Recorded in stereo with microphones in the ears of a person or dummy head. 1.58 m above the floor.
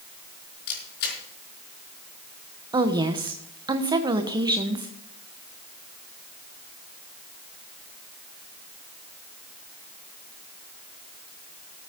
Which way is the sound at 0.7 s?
60° left (ahead or behind).